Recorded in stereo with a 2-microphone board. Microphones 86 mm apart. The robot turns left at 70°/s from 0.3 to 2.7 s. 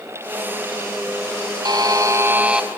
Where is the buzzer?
100° right, 2.0 m; by 2.7 s 170° right, 2.0 m.